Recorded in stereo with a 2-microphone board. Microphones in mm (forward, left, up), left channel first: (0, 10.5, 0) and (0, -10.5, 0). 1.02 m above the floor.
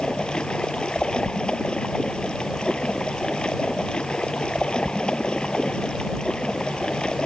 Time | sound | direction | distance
0.0 | running water | 50° left (ahead or behind) | ?